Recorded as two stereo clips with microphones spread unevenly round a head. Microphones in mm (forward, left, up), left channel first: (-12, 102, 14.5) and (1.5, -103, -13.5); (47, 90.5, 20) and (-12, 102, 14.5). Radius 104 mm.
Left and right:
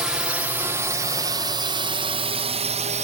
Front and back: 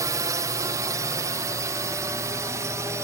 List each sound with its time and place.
0.0 s a drone: 170° right; by 3.0 s 140° right